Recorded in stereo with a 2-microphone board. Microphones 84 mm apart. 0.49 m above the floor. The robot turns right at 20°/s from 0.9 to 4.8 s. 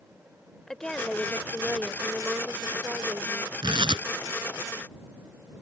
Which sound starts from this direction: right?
Tearing paper, at 3.6 s.